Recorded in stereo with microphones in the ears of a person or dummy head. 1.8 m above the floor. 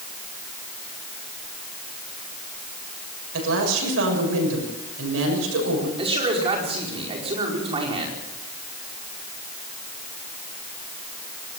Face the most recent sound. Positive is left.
turn(degrees=-30)  # may be behind; listen again after turning